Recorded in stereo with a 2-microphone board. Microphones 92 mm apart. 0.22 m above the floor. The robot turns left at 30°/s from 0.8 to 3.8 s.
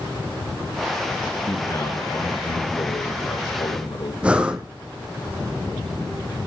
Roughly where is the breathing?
Centre.